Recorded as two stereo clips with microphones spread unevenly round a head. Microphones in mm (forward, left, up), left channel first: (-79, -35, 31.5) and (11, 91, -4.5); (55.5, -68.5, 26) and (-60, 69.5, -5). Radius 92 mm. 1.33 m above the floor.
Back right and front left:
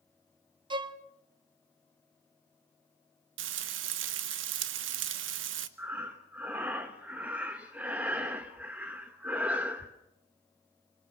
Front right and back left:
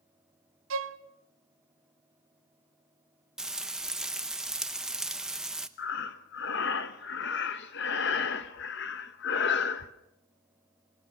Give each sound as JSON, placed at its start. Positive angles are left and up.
{"t": 0.7, "sound": "a violin", "azimuth_deg": 120, "distance_m": 0.8}
{"t": 3.4, "sound": "frying", "azimuth_deg": 40, "distance_m": 0.9}
{"t": 5.8, "sound": "breathing", "azimuth_deg": -35, "distance_m": 1.0}